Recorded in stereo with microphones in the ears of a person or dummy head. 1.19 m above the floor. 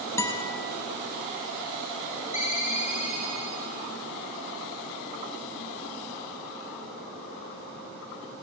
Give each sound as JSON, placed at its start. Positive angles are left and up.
{"t": 0.2, "sound": "a guitar", "side_deg": 15, "distance_m": 0.7}
{"t": 2.3, "sound": "a ringtone", "side_deg": 35, "distance_m": 0.8}